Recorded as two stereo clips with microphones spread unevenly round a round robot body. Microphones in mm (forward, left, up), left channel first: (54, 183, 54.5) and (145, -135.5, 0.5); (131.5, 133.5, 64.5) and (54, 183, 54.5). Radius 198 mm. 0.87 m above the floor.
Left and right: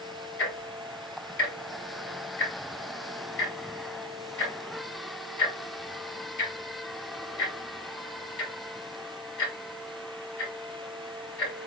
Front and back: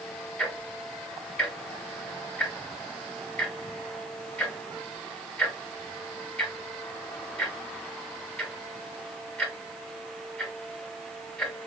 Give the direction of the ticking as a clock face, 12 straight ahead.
10 o'clock.